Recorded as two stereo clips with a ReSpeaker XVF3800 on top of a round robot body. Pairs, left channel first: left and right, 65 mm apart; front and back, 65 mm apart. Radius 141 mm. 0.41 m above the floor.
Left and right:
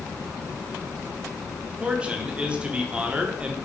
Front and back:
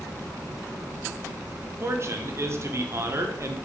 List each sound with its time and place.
1.8 s a man speaking: 160° right, 1.4 m